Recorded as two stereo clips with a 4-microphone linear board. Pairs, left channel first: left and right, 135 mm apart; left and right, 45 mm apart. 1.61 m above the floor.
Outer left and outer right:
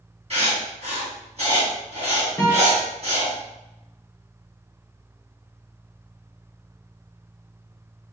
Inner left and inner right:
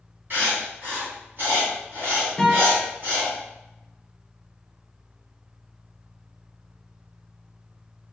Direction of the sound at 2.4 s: 20° left (ahead or behind).